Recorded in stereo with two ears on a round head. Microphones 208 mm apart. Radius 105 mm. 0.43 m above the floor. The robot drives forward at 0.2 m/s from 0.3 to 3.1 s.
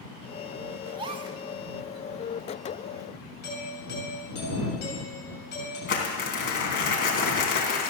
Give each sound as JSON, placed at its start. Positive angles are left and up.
{"t": 0.9, "sound": "a gasp", "side_deg": -20, "distance_m": 0.7}
{"t": 3.4, "sound": "a doorbell", "side_deg": 45, "distance_m": 6.5}
{"t": 5.9, "sound": "crumpling", "side_deg": 50, "distance_m": 3.0}